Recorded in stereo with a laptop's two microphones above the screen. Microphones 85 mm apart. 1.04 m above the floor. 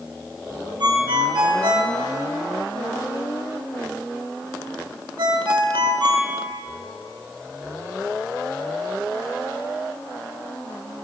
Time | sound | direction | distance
0.8 | a ringtone | 65° right (ahead or behind) | 0.8 m